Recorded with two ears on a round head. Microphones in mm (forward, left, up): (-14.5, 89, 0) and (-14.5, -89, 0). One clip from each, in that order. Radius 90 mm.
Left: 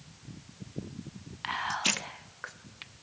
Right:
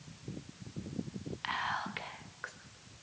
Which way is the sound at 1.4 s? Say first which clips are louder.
Left 6 dB; 5° left (ahead or behind).